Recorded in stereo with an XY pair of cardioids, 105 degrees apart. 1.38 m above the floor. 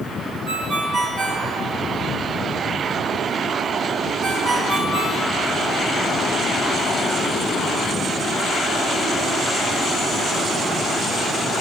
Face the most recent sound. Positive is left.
turn(degrees=-55)